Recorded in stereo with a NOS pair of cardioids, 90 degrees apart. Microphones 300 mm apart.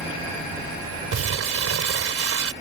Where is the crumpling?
50° right.